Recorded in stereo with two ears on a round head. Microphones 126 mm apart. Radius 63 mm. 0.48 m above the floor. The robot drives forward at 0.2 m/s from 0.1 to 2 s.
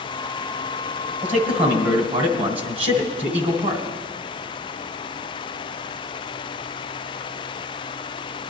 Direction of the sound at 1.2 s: 40° right (ahead or behind).